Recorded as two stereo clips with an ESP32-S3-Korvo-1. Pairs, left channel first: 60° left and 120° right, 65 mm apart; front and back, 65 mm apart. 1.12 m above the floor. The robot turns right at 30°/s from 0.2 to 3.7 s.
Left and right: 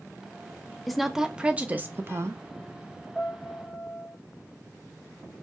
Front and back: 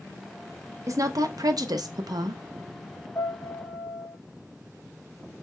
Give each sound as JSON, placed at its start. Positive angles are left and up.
{"t": 0.9, "sound": "a woman speaking", "azimuth_deg": 150, "distance_m": 0.6}
{"t": 3.1, "sound": "a piano", "azimuth_deg": -35, "distance_m": 1.8}